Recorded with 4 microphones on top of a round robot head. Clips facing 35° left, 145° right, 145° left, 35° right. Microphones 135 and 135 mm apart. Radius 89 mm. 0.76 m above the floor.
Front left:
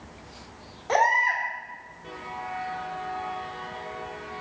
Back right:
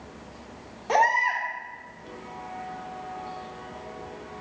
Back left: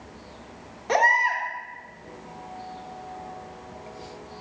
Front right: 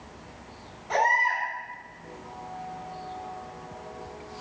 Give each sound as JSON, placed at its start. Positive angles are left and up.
{"t": 0.9, "sound": "a baby crying", "azimuth_deg": 135, "distance_m": 1.4}